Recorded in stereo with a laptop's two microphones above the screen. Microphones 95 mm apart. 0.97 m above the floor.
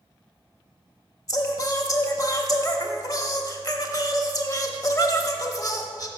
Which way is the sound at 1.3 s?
40° left (ahead or behind).